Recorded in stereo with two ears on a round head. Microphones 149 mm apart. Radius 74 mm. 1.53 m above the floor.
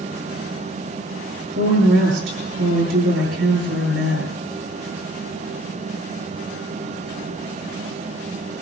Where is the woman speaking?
90° right, 7.5 m.